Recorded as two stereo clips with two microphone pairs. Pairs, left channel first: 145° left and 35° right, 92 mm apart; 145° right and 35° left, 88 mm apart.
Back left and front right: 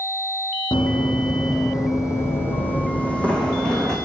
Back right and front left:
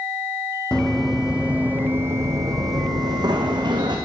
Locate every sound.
0.7 s running footsteps: 140° left, 2 m; by 4.0 s 60° left, 3.5 m